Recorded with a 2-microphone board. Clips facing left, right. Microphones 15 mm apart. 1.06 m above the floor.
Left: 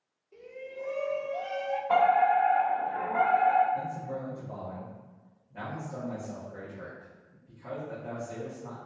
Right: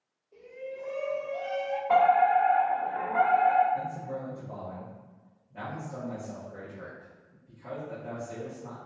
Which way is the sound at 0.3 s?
45° left (ahead or behind).